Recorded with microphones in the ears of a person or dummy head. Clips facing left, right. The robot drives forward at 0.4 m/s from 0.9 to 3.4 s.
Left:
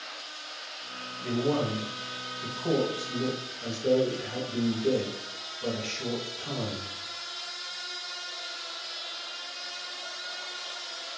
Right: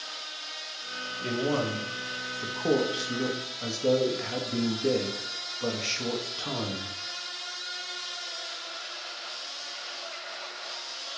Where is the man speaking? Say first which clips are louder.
Left 1 dB; 40° right (ahead or behind), 0.9 m; by 6.9 s 60° right (ahead or behind), 0.7 m.